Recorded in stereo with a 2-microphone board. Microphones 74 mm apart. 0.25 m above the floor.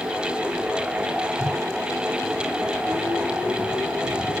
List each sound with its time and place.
1.4 s a whoosh: 55° right (ahead or behind), 1.5 m